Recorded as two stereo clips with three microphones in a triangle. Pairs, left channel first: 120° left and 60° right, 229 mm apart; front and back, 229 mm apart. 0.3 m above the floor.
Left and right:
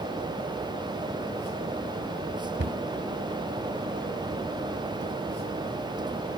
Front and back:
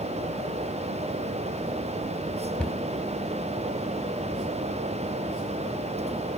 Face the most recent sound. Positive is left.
turn(degrees=-85)